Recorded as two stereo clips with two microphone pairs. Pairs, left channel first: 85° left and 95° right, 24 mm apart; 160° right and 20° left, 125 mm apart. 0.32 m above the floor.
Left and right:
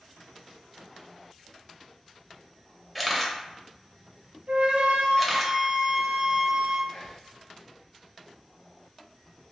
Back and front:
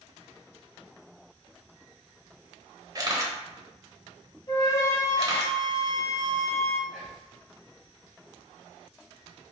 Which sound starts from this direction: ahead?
A camera shutter, at 3.0 s.